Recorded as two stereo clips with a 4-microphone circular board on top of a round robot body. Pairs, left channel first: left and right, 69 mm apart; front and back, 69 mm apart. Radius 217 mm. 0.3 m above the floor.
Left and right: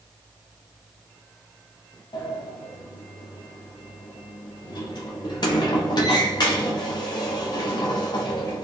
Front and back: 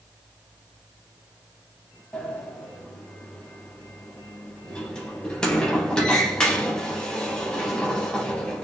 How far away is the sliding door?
About 0.5 m.